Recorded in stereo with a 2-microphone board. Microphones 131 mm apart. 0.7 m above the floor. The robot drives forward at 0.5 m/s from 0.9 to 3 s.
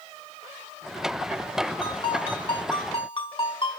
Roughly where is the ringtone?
Left.